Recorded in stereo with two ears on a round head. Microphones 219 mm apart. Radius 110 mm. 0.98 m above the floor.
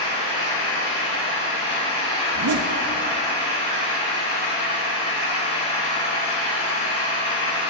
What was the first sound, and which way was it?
An engine running, 30° left (ahead or behind).